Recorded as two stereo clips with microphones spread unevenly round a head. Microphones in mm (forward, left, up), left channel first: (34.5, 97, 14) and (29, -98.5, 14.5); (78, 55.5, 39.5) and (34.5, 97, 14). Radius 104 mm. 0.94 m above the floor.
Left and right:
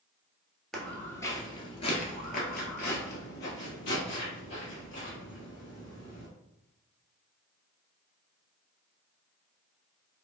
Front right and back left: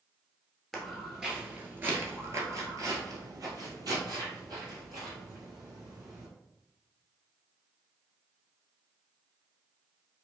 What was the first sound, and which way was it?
Footsteps, straight ahead.